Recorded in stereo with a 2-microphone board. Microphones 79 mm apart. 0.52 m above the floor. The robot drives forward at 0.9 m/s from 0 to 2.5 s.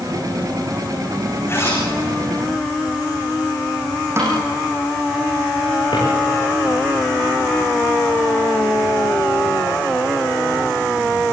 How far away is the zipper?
About 9.5 m.